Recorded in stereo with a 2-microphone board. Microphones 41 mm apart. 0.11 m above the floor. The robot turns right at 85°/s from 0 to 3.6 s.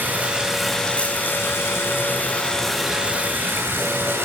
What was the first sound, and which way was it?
Running water, 55° right.